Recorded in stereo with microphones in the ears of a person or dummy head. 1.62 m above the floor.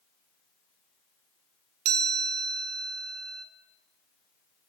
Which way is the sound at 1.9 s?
80° right.